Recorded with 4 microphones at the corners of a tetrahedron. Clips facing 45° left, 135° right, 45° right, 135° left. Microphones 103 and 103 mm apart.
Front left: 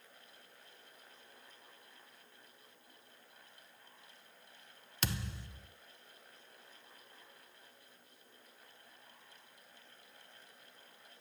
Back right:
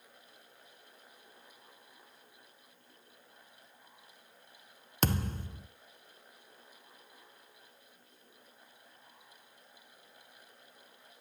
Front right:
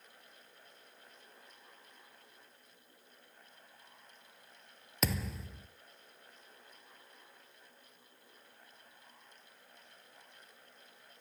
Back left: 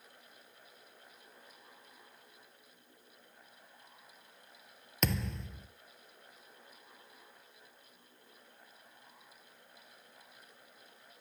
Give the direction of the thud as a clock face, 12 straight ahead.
4 o'clock.